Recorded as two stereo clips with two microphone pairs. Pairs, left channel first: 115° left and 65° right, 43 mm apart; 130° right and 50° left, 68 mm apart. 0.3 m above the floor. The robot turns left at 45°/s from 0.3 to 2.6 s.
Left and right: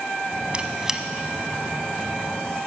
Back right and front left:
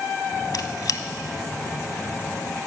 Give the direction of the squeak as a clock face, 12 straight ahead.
4 o'clock.